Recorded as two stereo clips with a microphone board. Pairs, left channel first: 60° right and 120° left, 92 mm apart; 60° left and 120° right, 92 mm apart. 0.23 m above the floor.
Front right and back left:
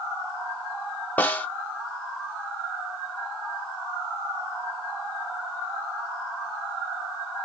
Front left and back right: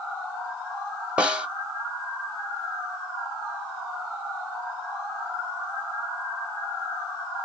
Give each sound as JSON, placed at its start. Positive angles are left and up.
{"t": 1.2, "sound": "a snare drum", "azimuth_deg": -70, "distance_m": 0.9}